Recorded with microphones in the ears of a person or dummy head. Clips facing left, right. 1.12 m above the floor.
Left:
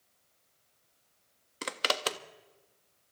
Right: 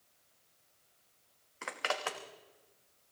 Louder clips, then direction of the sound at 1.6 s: Left 4 dB; 50° left (ahead or behind).